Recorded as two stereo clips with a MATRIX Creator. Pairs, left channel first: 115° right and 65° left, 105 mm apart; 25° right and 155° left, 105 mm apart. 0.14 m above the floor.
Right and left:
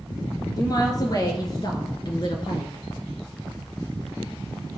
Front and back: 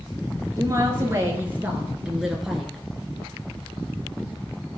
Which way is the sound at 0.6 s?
155° right.